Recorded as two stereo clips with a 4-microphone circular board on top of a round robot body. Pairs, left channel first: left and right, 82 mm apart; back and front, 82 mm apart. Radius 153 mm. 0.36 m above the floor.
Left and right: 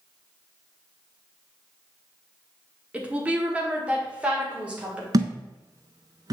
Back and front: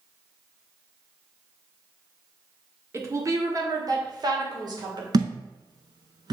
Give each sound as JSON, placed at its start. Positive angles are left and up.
{"t": 2.9, "sound": "a woman speaking", "azimuth_deg": -25, "distance_m": 1.5}
{"t": 5.1, "sound": "a thud", "azimuth_deg": -45, "distance_m": 0.5}